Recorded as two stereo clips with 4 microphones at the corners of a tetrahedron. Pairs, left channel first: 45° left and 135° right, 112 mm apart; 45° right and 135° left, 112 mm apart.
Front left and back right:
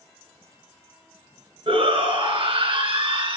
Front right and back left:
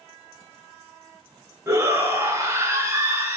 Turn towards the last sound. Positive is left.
turn(degrees=-160)